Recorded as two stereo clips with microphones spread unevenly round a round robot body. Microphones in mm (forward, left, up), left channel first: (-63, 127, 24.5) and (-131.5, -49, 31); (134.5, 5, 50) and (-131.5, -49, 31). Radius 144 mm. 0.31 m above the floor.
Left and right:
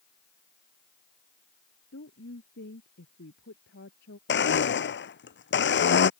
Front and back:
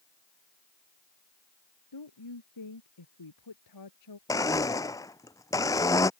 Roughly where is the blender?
Left.